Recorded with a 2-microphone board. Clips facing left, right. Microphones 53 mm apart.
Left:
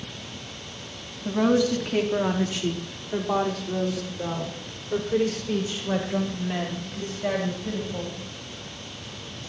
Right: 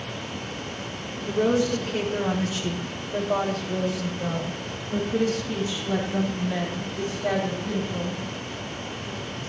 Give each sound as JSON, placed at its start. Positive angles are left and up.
{"t": 1.2, "sound": "a woman speaking", "side_deg": 85, "distance_m": 3.5}